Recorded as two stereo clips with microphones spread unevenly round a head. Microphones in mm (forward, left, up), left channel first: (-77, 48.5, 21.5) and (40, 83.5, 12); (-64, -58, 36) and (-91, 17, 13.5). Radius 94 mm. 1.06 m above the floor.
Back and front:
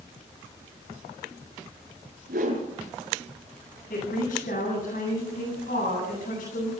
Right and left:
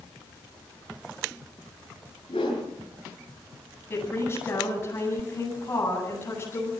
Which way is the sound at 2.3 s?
15° right.